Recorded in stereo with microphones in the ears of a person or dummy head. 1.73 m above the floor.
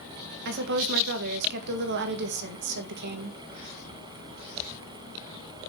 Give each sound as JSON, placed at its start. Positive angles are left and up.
{"t": 0.5, "sound": "a woman speaking", "side_deg": -60, "distance_m": 2.0}